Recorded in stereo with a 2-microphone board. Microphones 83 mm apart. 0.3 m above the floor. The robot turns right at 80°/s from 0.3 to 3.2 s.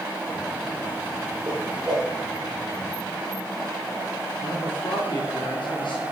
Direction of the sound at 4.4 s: 75° left (ahead or behind).